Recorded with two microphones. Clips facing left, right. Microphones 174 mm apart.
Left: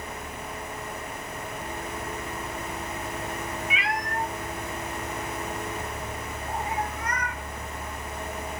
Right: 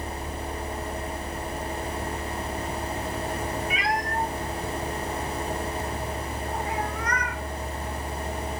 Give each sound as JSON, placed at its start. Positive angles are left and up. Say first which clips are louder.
{"t": 3.7, "sound": "a cat meowing", "louder": "right 3 dB", "side_deg": -40, "distance_m": 1.0}